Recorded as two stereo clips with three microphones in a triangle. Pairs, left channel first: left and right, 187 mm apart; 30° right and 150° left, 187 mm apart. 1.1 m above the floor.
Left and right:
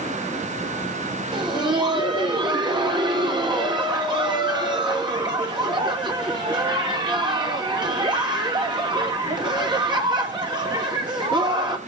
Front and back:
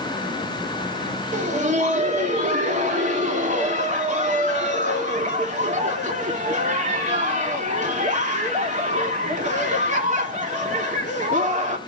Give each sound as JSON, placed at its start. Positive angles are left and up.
{"t": 1.3, "sound": "laughter", "azimuth_deg": -155, "distance_m": 2.5}